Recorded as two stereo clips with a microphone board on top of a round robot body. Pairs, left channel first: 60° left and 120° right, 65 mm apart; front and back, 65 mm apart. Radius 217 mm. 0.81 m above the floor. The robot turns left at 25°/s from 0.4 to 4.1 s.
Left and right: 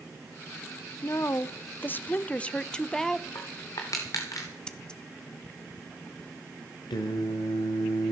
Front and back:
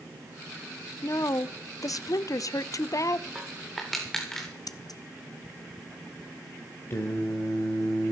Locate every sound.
1.0 s a woman speaking: 25° left, 0.6 m; by 3.2 s 30° right, 0.6 m
3.4 s crushing: 100° left, 0.5 m; by 4.5 s 80° left, 0.5 m
4.7 s scissors: 15° right, 0.8 m
6.9 s singing: 55° left, 0.9 m